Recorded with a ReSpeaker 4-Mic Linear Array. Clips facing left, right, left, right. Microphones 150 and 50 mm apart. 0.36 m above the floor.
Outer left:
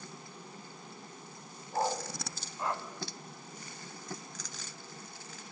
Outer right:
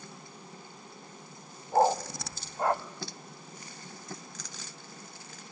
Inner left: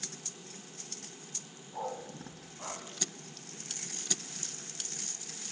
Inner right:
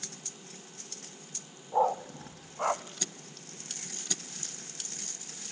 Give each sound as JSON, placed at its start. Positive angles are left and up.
{"t": 1.7, "sound": "a dog barking", "side_deg": -55, "distance_m": 0.7}